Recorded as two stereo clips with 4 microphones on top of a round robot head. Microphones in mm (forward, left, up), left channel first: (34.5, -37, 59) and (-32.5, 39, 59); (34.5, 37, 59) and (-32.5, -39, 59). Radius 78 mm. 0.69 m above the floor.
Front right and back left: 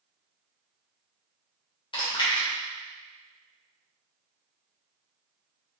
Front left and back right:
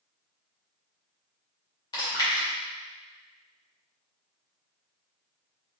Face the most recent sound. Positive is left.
turn(degrees=-5)